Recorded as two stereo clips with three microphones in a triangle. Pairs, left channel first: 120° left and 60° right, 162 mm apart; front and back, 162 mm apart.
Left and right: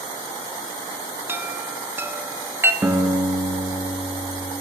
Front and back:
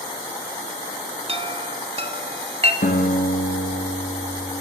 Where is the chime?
135° right, 1.0 m.